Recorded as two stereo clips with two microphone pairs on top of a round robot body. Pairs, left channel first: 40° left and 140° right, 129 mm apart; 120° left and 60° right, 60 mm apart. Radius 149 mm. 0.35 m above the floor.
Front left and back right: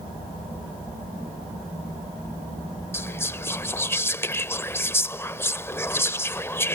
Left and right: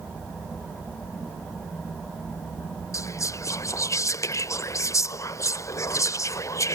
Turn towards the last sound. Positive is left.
turn(degrees=115)